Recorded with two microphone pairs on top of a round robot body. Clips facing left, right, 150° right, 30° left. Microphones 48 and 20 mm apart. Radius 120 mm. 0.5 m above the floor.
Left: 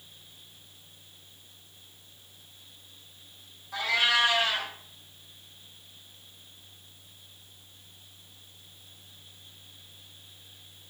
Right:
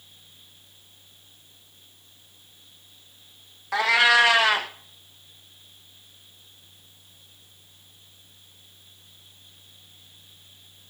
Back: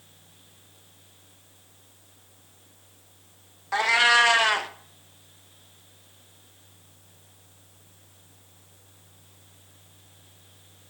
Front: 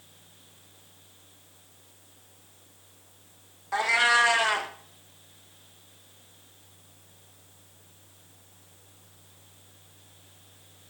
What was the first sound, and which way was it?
A cat meowing, 95° right.